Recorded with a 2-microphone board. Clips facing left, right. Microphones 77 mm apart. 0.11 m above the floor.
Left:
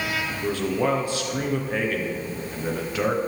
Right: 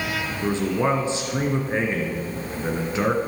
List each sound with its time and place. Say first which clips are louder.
0.4 s a man speaking: right 2 dB; 25° right (ahead or behind), 1.7 m